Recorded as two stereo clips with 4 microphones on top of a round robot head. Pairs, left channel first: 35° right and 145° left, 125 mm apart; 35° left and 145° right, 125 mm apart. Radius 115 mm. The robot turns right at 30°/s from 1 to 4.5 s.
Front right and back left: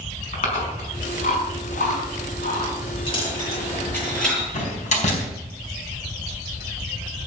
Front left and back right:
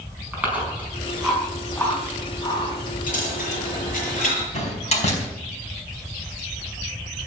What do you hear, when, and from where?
0.3 s chewing: 65° right, 5.5 m; by 2.8 s 15° right, 5.5 m
3.1 s a dropped coin: 15° left, 7.5 m; by 4.4 s 55° left, 7.5 m
4.5 s a door slam: straight ahead, 4.5 m